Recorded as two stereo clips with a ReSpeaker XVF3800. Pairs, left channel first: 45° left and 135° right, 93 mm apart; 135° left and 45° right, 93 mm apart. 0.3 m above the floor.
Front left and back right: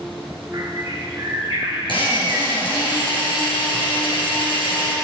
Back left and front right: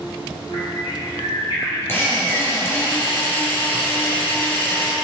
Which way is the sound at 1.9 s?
70° left.